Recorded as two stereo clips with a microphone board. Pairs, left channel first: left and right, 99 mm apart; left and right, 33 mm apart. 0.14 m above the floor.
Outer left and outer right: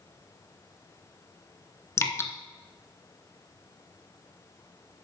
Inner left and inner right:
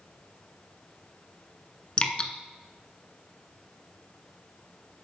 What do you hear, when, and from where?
2.0 s dripping: 30° left (ahead or behind), 0.6 m